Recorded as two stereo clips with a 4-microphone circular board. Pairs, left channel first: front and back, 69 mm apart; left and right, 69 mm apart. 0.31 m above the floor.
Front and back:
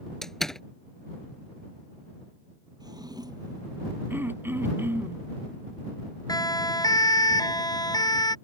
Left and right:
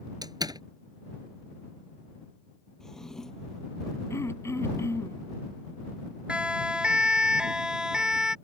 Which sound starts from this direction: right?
A door slam, at 0.2 s.